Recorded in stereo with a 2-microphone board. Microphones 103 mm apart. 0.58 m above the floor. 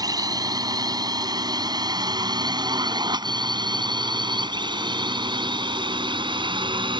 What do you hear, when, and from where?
0.0 s a drone: 35° right (ahead or behind); by 7.0 s 45° right (ahead or behind)